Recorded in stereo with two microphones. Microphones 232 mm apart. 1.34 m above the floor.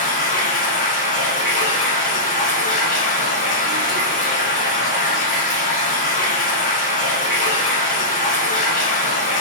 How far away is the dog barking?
No dog barking in this recording.